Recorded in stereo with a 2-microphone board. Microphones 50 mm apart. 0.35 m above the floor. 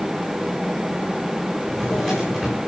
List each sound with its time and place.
1.7 s a drawer: 10° left (ahead or behind), 9.5 m